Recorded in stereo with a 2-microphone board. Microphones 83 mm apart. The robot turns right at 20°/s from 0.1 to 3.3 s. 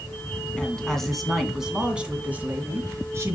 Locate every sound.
0.6 s a woman speaking: 165° left, 2.0 m; by 3.4 s 140° right, 2.0 m